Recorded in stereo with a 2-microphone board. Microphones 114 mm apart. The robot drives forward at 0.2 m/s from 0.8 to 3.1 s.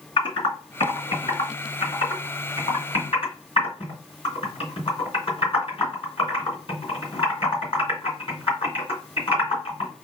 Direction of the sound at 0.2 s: 50° left (ahead or behind).